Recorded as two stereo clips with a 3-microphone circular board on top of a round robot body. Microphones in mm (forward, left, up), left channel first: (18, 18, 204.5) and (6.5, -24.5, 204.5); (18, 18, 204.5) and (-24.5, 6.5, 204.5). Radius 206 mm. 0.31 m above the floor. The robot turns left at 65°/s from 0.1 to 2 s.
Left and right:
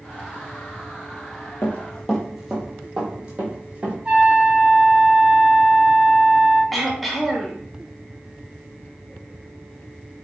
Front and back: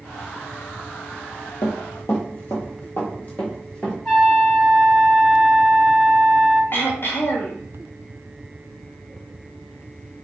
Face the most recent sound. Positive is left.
turn(degrees=-15)